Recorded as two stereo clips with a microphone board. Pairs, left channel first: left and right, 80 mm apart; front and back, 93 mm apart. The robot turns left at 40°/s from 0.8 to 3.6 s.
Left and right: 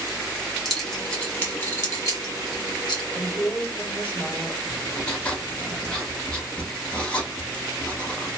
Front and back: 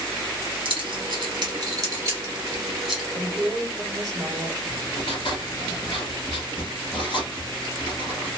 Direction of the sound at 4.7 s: 15° left.